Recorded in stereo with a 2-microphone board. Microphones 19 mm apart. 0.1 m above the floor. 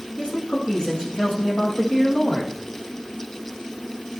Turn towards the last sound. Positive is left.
turn(degrees=65)  # may be behind; listen again after turning